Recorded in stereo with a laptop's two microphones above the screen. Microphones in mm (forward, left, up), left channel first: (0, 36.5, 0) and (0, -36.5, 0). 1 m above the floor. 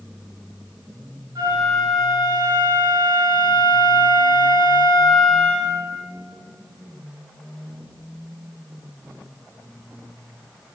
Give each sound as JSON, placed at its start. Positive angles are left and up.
{"t": 1.4, "sound": "a flute", "side_deg": -65, "distance_m": 1.5}